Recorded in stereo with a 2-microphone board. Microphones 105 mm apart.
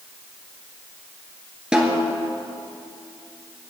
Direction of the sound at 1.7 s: 10° right (ahead or behind).